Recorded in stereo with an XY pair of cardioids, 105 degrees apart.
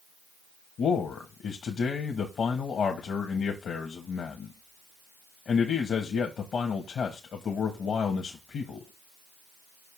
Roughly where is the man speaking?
Ahead left.